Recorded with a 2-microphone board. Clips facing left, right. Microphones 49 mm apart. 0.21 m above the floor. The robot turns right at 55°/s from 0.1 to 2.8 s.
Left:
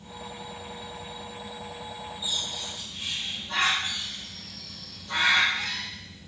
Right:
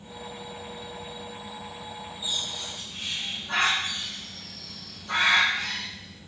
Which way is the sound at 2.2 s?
30° right (ahead or behind).